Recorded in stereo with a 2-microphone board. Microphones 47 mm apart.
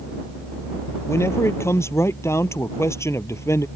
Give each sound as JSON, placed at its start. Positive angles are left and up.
{"t": 1.1, "sound": "a man speaking", "side_deg": 65}